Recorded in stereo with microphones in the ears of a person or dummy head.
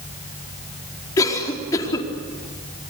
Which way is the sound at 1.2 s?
20° left (ahead or behind).